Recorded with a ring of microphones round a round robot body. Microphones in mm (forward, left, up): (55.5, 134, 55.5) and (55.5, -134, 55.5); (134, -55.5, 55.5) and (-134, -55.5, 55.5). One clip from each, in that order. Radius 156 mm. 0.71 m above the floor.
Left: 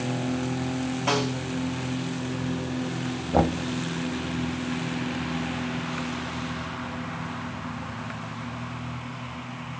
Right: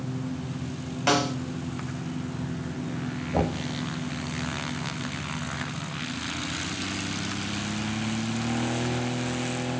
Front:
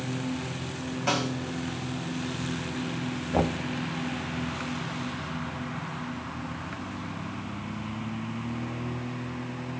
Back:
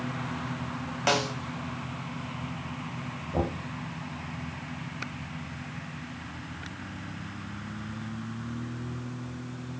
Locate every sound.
1.1 s a snare drum: 140° right, 3.5 m
3.3 s knocking: 50° left, 0.8 m